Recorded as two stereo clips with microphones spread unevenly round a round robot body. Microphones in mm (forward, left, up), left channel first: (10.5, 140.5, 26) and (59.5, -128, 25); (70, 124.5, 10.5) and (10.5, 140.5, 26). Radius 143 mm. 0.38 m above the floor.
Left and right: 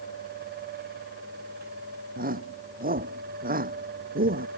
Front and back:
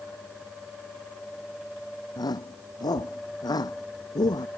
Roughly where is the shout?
Ahead.